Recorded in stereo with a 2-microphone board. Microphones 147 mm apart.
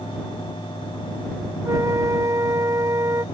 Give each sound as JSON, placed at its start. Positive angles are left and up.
{"t": 1.6, "sound": "a flute", "side_deg": -20}